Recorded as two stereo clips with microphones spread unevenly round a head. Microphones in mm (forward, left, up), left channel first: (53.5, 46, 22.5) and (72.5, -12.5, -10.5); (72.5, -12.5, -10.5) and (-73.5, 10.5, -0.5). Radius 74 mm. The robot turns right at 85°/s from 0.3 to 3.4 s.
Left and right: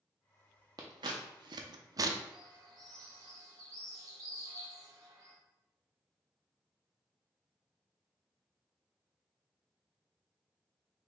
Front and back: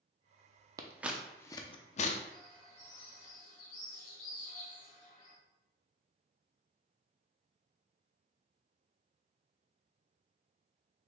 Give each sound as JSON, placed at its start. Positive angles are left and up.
{"t": 0.8, "sound": "scissors", "azimuth_deg": -140, "distance_m": 0.5}
{"t": 2.3, "sound": "a bird", "azimuth_deg": -120, "distance_m": 1.9}